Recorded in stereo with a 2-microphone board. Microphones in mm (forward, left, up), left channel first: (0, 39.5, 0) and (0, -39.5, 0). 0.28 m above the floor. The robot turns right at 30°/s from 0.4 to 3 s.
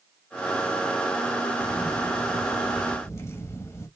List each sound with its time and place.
1.6 s a camera shutter: 75° left, 0.9 m; by 3.9 s 115° left, 0.9 m